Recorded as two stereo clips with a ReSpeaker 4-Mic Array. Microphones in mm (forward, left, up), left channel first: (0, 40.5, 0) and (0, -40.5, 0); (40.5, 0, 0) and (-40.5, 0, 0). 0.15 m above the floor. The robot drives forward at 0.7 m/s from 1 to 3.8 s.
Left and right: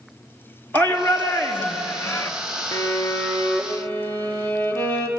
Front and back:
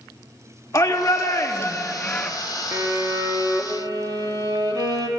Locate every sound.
0.7 s a shout: 25° left, 1.6 m; by 2.3 s 65° left, 1.2 m
2.7 s a violin: 130° left, 1.3 m; by 5.1 s 150° left, 1.8 m